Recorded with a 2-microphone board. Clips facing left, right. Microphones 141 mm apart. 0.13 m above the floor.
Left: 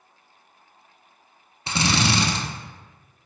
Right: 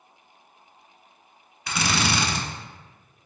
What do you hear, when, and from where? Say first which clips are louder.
1.7 s a drill: left 3 dB; 30° left (ahead or behind), 0.5 m